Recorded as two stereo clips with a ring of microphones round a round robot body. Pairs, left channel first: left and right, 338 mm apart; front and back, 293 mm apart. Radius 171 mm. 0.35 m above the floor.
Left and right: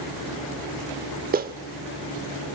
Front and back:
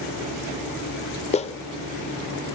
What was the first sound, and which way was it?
A clap, 50° right.